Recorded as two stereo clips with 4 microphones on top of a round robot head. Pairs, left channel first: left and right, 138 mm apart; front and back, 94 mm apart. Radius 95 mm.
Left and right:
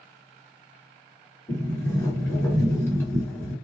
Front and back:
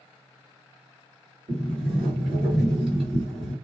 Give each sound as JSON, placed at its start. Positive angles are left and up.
{"t": 1.5, "sound": "a sliding door", "azimuth_deg": 160, "distance_m": 2.0}